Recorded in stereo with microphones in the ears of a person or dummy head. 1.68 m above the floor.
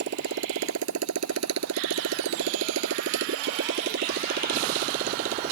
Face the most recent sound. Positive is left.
turn(degrees=-45)  # may be behind; listen again after turning